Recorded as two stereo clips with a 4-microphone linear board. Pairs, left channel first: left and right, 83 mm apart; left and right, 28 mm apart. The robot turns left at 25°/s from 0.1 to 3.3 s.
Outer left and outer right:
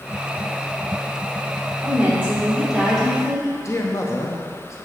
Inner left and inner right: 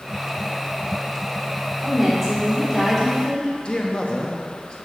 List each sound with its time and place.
1.8 s a woman speaking: 155° right, 2.5 m; by 3.5 s 170° left, 2.5 m
3.6 s a man speaking: 35° left (ahead or behind), 0.7 m